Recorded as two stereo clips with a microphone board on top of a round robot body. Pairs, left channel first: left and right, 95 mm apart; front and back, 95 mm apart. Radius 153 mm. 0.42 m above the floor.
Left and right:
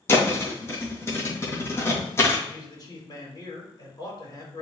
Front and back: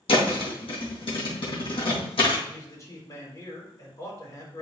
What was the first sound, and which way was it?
A thud, 25° left.